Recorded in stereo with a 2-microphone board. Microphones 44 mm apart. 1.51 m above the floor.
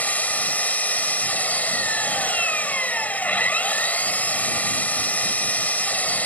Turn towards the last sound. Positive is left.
turn(degrees=40)  # may be behind; listen again after turning